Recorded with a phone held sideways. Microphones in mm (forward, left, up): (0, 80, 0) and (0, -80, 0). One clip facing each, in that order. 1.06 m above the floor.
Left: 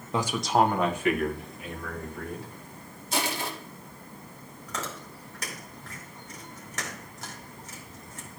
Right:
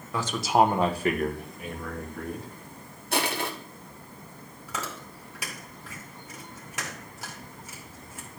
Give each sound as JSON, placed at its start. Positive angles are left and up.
{"t": 0.1, "sound": "a man speaking", "side_deg": 20, "distance_m": 0.6}
{"t": 3.1, "sound": "crushing", "side_deg": -55, "distance_m": 1.2}
{"t": 4.7, "sound": "chewing", "side_deg": -10, "distance_m": 2.5}